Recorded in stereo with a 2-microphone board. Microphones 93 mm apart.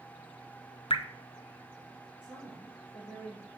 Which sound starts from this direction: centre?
A woman speaking, at 2.2 s.